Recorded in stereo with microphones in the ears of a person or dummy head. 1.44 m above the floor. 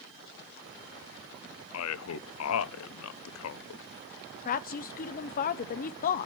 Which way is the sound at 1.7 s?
85° left.